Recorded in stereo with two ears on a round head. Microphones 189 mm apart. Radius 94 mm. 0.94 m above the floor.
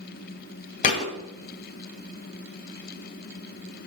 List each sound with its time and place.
0.8 s a thud: 40° left (ahead or behind), 1.2 m